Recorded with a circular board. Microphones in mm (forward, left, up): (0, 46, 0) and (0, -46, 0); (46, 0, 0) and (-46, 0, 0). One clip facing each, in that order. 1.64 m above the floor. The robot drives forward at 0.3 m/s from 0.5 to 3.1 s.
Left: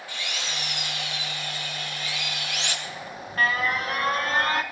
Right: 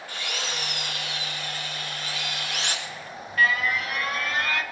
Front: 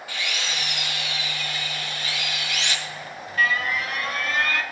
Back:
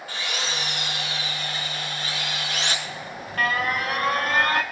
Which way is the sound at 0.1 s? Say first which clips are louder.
Right 2 dB, back 1 dB; 130° right.